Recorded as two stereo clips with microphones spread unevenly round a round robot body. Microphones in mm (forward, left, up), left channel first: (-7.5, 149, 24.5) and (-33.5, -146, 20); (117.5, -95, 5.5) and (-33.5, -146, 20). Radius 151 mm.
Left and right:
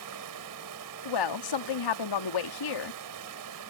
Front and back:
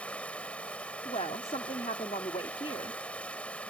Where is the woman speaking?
90° left.